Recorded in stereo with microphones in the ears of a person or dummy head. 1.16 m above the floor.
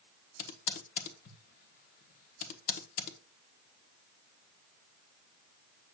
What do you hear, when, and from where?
0.4 s typing on a keyboard: 55° left (ahead or behind), 1.1 m